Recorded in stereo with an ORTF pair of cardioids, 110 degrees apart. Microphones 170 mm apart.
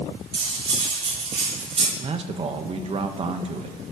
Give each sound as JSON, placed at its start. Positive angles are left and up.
{"t": 0.3, "sound": "cutlery clinking", "azimuth_deg": -35, "distance_m": 2.5}
{"t": 2.0, "sound": "a man speaking", "azimuth_deg": -35, "distance_m": 1.2}